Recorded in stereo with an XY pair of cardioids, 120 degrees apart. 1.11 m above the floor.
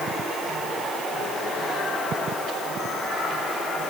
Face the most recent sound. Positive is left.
No sound to turn to.